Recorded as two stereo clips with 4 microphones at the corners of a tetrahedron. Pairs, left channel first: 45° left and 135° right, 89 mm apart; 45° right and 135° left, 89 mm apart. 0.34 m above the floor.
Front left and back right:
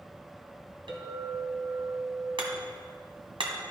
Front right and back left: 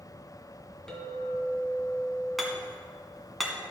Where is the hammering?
135° right, 1.7 m.